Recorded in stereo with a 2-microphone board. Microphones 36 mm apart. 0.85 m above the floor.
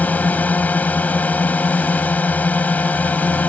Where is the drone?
45° left (ahead or behind).